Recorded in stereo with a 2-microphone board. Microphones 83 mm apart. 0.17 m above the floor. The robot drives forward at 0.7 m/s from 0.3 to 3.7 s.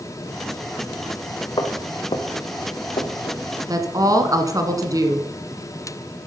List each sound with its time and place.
1.6 s footsteps: 55° left (ahead or behind), 2 m; by 3.4 s 65° left (ahead or behind), 3 m
3.7 s a woman speaking: 40° right (ahead or behind), 1.4 m